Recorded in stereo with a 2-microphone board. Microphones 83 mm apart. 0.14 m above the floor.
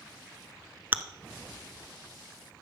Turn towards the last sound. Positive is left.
turn(degrees=-25)  # may be behind; listen again after turning